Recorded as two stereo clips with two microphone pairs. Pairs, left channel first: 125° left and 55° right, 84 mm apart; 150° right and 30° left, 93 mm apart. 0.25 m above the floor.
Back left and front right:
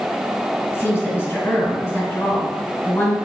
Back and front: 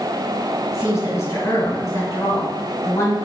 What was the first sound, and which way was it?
A woman speaking, 165° left.